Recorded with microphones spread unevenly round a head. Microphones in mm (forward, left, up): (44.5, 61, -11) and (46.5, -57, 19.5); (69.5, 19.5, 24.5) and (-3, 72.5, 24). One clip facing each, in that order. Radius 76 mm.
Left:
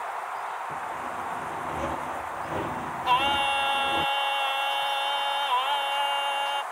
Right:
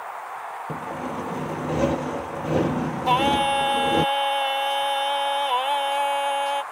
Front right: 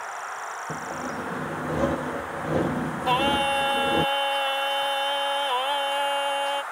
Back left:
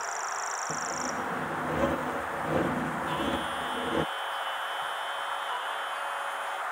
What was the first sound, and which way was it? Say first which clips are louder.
Sawing: right 3 dB, front right 1 dB; 115° right.